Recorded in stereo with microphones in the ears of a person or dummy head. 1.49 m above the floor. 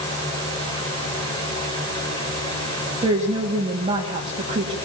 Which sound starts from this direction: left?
A fan, at 0.0 s.